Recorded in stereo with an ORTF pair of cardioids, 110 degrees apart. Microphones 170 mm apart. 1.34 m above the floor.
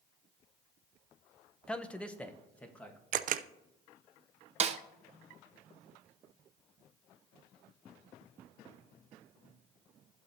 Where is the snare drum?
40° right, 0.7 m.